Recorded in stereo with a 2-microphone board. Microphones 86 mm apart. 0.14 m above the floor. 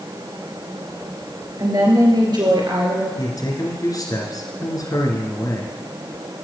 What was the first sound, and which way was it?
A woman speaking, 45° right (ahead or behind).